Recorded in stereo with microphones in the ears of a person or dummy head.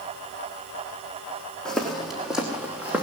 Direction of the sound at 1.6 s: 5° left (ahead or behind).